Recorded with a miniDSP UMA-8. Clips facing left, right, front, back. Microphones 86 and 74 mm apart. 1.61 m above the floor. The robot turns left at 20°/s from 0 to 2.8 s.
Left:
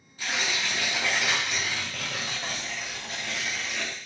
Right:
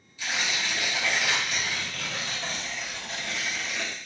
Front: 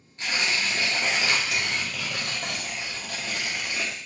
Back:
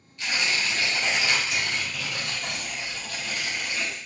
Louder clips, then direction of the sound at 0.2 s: Even, even; 55° left.